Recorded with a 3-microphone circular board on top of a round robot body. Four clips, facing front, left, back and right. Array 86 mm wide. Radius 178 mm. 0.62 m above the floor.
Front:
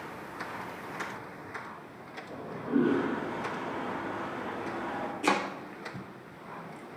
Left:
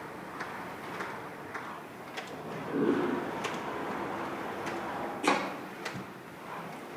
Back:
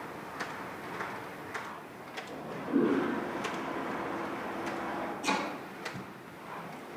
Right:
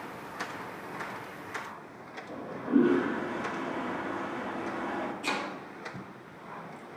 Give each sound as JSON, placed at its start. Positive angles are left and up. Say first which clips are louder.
{"t": 2.3, "sound": "a toilet flushing", "louder": "right 9 dB, front 1 dB", "azimuth_deg": -65, "distance_m": 6.5}
{"t": 5.2, "sound": "chopping", "louder": "left 5 dB, front 6 dB", "azimuth_deg": 35, "distance_m": 1.3}